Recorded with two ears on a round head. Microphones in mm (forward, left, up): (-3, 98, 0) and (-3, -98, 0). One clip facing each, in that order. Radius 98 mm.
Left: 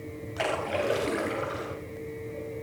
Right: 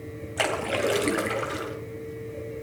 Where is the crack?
No crack in this recording.